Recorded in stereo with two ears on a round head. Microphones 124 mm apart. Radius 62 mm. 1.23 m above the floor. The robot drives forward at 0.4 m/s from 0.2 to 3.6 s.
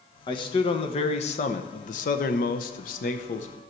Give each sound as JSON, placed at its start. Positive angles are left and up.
{"t": 0.3, "sound": "a man speaking", "side_deg": 35, "distance_m": 1.2}